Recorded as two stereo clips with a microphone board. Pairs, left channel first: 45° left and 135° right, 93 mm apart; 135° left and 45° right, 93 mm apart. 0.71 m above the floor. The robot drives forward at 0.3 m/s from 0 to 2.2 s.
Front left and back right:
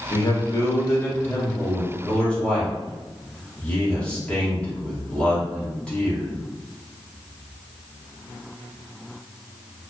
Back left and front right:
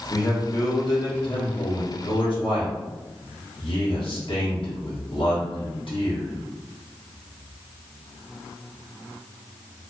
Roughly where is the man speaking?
Left.